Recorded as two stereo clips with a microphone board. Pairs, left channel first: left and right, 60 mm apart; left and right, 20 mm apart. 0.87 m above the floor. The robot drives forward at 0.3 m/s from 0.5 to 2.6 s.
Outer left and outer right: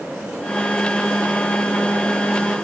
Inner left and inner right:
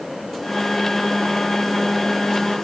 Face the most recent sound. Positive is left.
No sound to turn to.